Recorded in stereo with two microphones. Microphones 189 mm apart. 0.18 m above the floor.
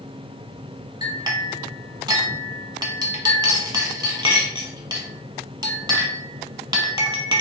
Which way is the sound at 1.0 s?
20° right (ahead or behind).